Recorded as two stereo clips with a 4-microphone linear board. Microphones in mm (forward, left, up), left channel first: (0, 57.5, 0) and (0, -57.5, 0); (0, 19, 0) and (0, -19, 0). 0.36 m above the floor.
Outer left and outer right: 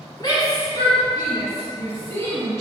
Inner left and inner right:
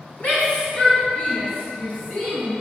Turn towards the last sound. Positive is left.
turn(degrees=25)  # may be behind; listen again after turning